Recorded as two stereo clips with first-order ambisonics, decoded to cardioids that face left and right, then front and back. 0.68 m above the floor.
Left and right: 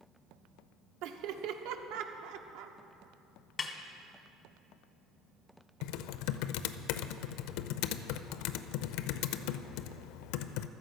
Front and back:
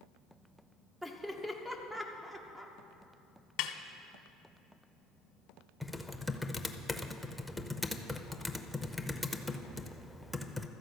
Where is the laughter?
95° right, 1.2 m.